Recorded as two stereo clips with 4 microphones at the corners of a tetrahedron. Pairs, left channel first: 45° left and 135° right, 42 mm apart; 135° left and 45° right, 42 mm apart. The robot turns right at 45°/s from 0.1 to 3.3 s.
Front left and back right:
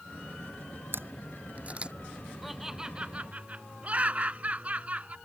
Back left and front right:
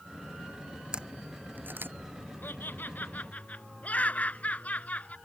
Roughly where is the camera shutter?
Behind right.